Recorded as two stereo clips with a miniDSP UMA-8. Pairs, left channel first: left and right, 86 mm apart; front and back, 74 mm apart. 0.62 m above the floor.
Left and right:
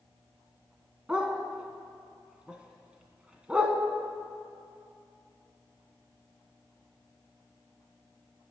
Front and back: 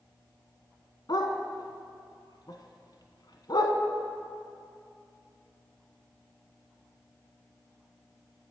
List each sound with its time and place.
1.1 s a dog barking: 10° right, 1.3 m